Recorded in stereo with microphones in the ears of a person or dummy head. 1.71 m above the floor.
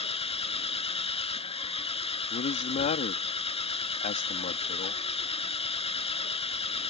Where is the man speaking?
40° left (ahead or behind).